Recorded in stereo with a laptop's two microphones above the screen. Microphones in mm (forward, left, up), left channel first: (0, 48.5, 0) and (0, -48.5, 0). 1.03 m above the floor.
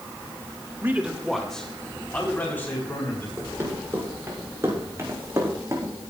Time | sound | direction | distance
0.8 | a man speaking | 25° right (ahead or behind) | 1.2 m
3.4 | running footsteps | 30° right (ahead or behind) | 7 m